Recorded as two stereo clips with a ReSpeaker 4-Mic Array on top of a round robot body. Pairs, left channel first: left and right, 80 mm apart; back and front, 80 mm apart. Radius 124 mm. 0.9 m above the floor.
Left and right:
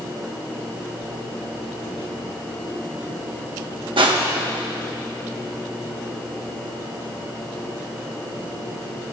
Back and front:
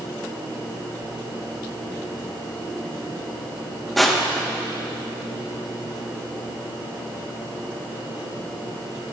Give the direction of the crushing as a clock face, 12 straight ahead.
3 o'clock.